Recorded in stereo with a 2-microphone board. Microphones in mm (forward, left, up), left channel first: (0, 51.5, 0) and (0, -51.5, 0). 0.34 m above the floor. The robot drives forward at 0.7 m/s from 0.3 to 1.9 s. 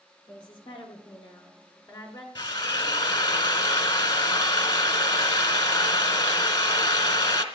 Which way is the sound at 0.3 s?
50° left (ahead or behind).